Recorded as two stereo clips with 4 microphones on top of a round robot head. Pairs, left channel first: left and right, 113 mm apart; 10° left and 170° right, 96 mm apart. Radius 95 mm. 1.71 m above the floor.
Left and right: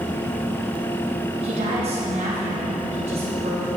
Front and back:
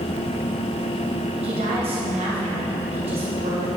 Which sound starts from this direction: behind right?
A woman speaking, at 1.4 s.